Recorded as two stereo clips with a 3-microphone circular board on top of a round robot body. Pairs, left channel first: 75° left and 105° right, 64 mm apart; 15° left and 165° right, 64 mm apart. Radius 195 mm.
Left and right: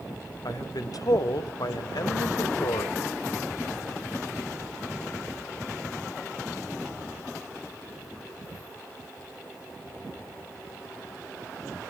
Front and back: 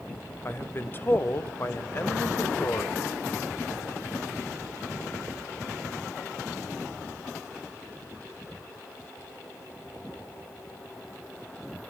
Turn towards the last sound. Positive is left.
turn(degrees=70)